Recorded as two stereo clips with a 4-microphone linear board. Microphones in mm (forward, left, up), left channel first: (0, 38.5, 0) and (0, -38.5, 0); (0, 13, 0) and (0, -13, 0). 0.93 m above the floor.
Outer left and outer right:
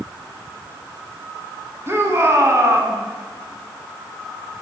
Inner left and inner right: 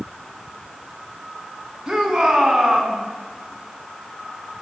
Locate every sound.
1.9 s a shout: 35° right (ahead or behind), 7.5 m